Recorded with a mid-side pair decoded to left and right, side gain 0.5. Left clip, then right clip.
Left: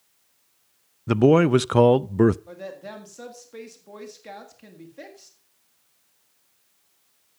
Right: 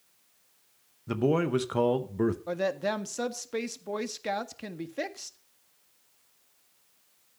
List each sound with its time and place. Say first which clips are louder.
1.1 s a man speaking: left 10 dB; 55° left, 0.6 m
2.5 s a woman speaking: right 8 dB; 55° right, 1.6 m